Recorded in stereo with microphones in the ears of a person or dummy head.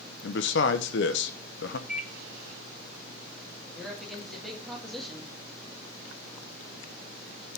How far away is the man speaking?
About 0.8 m.